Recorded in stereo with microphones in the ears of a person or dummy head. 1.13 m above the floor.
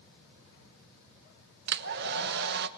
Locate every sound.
1.7 s a hair dryer: 50° right (ahead or behind), 0.8 m